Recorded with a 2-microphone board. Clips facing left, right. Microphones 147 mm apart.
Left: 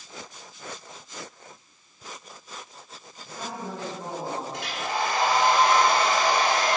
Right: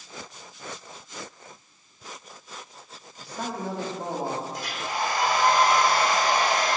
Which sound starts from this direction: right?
A man speaking, at 3.2 s.